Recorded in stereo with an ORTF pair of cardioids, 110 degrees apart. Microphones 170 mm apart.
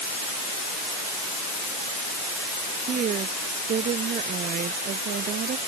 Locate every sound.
2.8 s a woman speaking: 45° right; by 5.6 s 60° right